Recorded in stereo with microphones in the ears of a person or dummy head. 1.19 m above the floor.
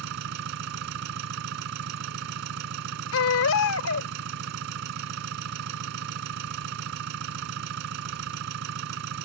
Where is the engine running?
70° right (ahead or behind).